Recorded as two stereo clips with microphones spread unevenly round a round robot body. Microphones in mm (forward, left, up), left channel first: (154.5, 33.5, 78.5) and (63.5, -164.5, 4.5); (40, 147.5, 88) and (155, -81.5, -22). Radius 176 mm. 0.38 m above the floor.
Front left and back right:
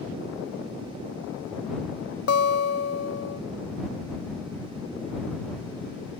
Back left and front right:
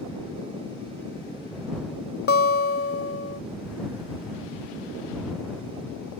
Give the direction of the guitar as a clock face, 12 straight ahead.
10 o'clock.